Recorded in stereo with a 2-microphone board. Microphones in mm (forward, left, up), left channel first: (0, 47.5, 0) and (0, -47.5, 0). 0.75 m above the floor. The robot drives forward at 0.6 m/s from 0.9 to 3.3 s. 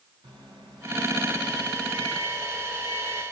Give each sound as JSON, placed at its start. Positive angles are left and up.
{"t": 0.2, "sound": "a microwave", "side_deg": -55, "distance_m": 4.0}